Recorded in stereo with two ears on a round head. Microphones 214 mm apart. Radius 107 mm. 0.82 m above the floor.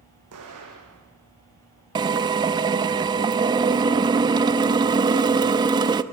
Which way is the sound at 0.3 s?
80° right.